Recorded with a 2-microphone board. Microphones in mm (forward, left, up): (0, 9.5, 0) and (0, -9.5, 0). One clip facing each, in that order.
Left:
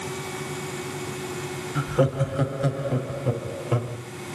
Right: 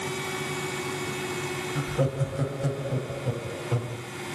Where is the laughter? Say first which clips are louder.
Left 7 dB; 30° left (ahead or behind), 1.1 m.